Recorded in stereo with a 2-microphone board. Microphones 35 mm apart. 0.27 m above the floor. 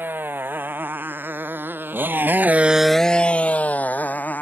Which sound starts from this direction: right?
A motorcycle, at 0.0 s.